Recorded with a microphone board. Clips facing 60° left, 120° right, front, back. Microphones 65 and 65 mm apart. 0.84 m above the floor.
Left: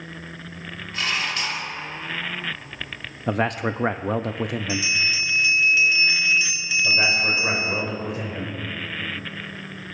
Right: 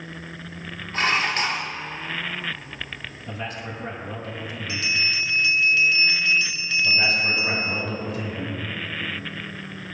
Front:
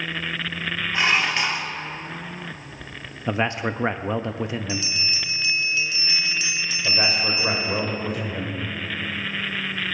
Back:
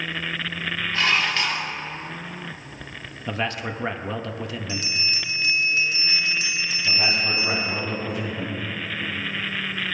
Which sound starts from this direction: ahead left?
A man speaking, at 3.3 s.